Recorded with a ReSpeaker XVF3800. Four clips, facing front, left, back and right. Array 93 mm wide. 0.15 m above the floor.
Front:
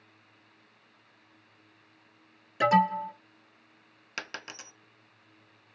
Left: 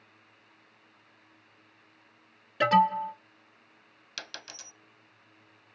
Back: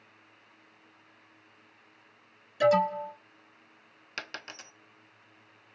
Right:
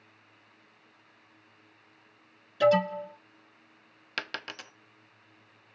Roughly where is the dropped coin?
Right.